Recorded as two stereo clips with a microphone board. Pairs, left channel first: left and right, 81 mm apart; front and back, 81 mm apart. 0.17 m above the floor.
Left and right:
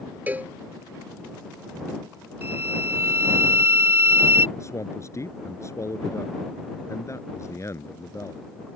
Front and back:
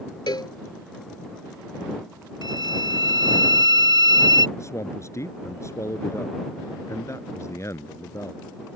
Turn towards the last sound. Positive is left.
turn(degrees=45)